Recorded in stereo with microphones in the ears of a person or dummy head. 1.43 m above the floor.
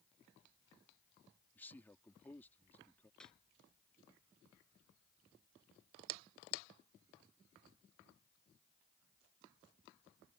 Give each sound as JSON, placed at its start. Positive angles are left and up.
{"t": 1.6, "sound": "a man speaking", "side_deg": 15}
{"t": 3.2, "sound": "a snare drum", "side_deg": 5}